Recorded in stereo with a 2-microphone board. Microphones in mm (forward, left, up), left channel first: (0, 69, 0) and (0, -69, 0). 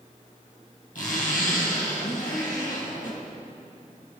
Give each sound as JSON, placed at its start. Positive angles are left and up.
{"t": 0.9, "sound": "a zipper", "side_deg": 70, "distance_m": 2.5}